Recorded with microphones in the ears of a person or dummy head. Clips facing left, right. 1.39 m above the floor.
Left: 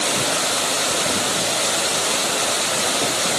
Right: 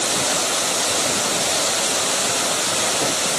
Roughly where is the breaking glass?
I don't hear breaking glass.